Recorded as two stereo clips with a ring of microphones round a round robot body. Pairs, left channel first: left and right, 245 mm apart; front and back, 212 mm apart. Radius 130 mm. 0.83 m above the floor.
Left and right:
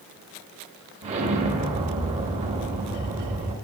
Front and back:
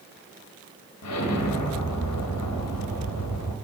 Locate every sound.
1.0 s an explosion: 25° right, 0.7 m